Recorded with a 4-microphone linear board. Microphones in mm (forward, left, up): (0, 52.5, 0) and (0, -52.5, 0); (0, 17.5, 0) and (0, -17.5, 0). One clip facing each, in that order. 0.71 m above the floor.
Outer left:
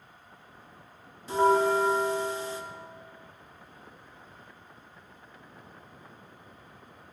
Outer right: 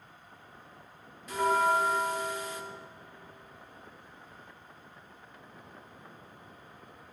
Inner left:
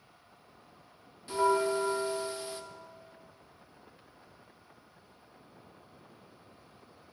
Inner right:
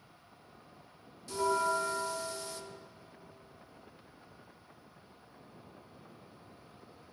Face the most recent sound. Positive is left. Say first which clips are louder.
# outer left 4 dB, inner left 3 dB
turn(degrees=30)  # may be behind; listen again after turning